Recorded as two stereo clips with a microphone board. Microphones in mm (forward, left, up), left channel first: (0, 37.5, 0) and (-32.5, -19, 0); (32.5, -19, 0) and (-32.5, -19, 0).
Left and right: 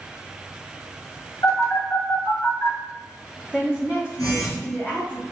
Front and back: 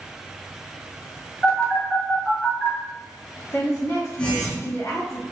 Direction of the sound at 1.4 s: 75° left.